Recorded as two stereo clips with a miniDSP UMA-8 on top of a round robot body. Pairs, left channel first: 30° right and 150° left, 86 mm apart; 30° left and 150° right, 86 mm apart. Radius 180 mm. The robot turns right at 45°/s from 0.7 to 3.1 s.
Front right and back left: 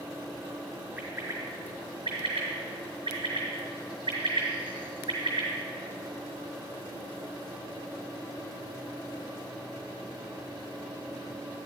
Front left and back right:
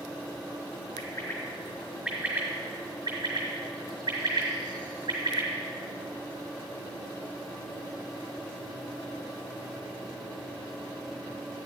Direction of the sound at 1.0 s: 80° left.